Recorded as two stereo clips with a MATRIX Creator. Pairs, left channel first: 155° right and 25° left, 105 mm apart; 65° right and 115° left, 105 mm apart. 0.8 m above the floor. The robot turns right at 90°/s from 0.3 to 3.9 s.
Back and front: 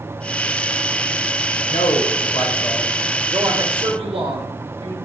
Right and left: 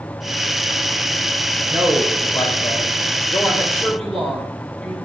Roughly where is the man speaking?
Behind.